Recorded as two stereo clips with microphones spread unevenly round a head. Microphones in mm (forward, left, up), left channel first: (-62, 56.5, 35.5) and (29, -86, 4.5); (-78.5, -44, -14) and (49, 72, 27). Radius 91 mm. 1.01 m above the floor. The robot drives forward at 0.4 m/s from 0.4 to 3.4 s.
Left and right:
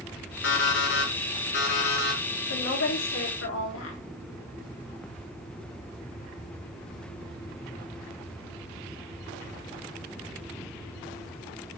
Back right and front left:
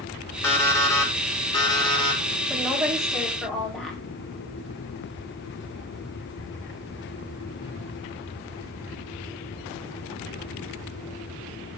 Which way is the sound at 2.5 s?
130° left.